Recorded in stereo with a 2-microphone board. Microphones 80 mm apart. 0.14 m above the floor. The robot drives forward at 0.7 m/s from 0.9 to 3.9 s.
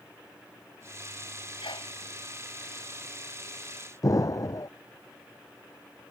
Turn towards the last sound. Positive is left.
turn(degrees=45)  # may be behind; listen again after turning